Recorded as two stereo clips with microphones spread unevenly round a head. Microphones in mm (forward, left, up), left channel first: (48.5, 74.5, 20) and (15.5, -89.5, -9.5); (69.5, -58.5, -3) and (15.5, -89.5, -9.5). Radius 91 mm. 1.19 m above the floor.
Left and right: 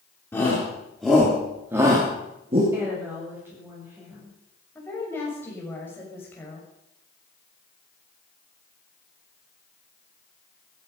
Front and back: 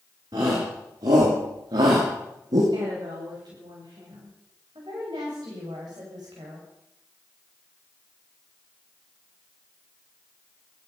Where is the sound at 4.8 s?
160° left, 6.5 m.